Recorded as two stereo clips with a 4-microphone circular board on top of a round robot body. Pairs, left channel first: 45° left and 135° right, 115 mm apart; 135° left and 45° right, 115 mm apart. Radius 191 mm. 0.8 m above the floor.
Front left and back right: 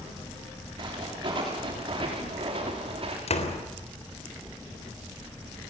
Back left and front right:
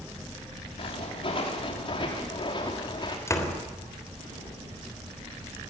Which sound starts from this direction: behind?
Footsteps, at 0.8 s.